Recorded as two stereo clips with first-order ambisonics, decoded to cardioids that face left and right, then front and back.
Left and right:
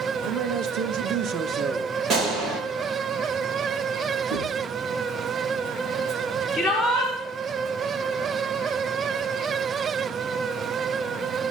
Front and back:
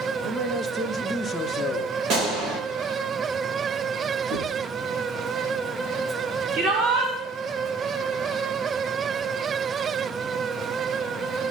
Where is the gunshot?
155° right, 4.5 m.